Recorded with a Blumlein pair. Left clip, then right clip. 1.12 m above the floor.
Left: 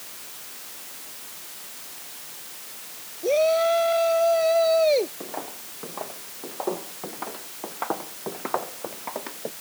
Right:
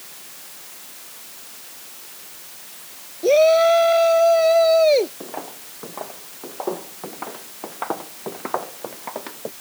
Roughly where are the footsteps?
Ahead.